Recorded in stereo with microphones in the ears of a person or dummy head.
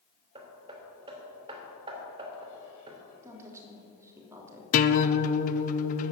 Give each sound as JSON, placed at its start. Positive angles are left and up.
{"t": 0.3, "sound": "hammering", "side_deg": -20, "distance_m": 2.5}
{"t": 3.2, "sound": "a woman speaking", "side_deg": -10, "distance_m": 3.0}
{"t": 4.7, "sound": "a guitar", "side_deg": 45, "distance_m": 0.8}